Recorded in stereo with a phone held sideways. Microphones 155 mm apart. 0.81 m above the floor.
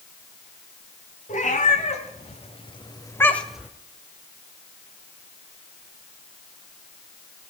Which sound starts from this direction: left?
A cat meowing, at 1.3 s.